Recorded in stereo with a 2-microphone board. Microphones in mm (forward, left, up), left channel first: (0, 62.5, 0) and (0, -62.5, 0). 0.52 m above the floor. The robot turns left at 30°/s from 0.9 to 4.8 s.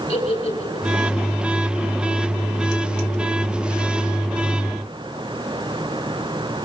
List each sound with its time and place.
0.1 s a giggle: 45° left (ahead or behind), 6.5 m; by 1.0 s 40° left (ahead or behind), 6.5 m